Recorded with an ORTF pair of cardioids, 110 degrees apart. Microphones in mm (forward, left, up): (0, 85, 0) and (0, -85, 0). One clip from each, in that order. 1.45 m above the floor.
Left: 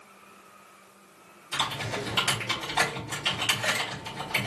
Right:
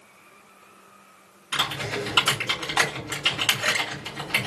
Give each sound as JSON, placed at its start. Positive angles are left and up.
{"t": 1.5, "sound": "typing on a keyboard", "azimuth_deg": -45, "distance_m": 3.0}